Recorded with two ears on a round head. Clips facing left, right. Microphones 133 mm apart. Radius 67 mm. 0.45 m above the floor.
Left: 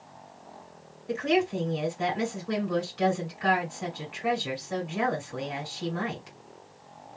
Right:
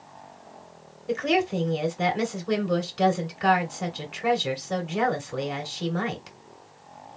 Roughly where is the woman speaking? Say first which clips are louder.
Right 2 dB; right.